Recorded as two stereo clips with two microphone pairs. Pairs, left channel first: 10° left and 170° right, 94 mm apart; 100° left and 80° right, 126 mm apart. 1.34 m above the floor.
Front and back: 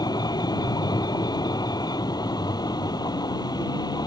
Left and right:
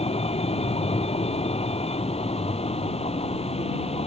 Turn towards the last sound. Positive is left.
turn(degrees=60)